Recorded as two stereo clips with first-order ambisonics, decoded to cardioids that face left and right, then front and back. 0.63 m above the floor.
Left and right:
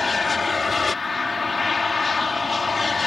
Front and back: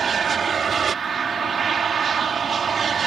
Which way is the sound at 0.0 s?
150° left.